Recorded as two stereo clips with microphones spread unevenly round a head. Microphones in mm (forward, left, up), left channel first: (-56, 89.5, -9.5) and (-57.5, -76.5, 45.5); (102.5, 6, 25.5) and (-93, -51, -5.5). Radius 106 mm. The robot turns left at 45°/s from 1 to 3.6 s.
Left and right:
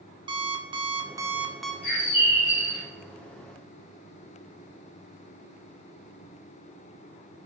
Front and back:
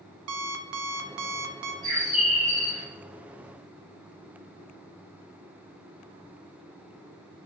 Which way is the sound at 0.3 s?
145° right.